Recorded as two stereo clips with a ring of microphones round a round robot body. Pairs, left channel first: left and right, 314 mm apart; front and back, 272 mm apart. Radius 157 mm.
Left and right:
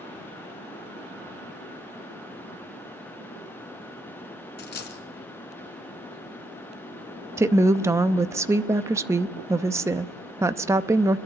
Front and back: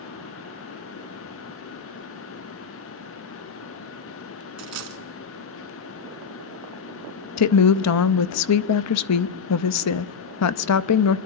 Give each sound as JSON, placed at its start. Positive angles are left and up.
{"t": 4.6, "sound": "a dropped coin", "azimuth_deg": 150, "distance_m": 2.5}
{"t": 7.4, "sound": "a woman speaking", "azimuth_deg": -10, "distance_m": 0.6}